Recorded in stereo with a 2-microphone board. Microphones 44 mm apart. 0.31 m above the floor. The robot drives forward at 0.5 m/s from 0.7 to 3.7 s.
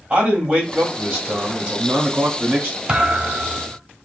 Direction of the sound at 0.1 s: 20° right (ahead or behind).